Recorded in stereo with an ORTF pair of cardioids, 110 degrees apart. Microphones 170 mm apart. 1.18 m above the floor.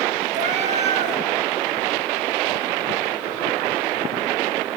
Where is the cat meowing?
50° right, 3 m.